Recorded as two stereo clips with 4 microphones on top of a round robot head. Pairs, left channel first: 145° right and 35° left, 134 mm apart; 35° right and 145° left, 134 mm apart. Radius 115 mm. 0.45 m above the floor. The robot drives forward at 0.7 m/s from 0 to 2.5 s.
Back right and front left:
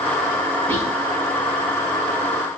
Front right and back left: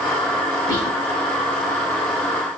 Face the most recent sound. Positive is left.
turn(degrees=145)